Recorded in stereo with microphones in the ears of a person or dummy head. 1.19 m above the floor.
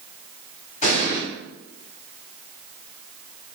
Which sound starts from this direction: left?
An explosion, at 0.8 s.